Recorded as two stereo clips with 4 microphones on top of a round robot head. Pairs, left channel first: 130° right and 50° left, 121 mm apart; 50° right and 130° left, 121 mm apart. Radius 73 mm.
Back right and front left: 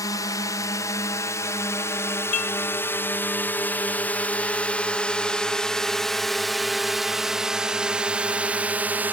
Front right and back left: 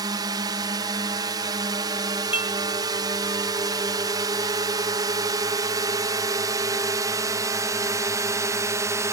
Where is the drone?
175° left; by 9.1 s 105° left.